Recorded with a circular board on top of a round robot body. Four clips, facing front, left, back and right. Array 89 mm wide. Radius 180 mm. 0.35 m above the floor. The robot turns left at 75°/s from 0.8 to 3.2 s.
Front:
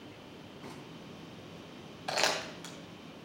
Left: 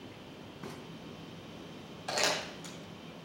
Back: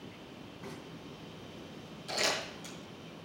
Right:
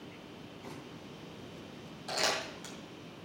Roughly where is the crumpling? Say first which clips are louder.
Left 1 dB, front 3 dB; ahead.